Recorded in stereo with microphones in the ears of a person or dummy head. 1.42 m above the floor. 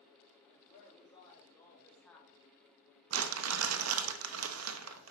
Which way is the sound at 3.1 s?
80° right.